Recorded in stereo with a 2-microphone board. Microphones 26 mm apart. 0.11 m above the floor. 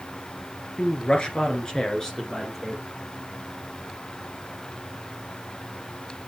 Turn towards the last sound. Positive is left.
turn(degrees=15)  # may be behind; listen again after turning